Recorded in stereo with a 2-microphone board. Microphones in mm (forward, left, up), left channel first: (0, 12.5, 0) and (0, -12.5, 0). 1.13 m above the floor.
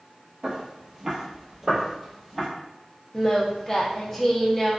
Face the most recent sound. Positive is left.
turn(degrees=10)  # may be behind; listen again after turning